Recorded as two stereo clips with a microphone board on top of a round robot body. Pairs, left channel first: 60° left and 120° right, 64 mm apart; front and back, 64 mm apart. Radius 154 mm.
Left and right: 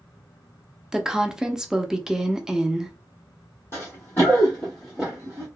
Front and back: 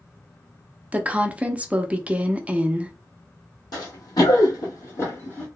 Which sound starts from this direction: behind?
A woman speaking, at 0.9 s.